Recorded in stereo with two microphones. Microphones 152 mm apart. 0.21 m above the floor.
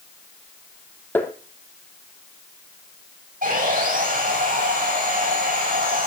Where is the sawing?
65° right (ahead or behind), 9 m.